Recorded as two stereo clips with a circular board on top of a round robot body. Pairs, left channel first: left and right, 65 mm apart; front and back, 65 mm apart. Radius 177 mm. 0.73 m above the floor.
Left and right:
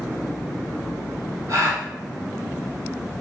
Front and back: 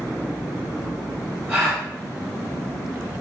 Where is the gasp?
115° right, 1.6 m.